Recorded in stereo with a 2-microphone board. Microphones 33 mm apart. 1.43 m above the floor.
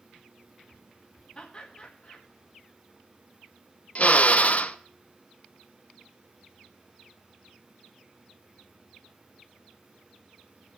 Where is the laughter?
30° left (ahead or behind), 2.5 m.